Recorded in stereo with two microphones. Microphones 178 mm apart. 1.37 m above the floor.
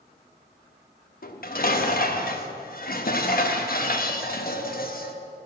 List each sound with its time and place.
1.2 s dishes clattering: 55° left (ahead or behind), 1.1 m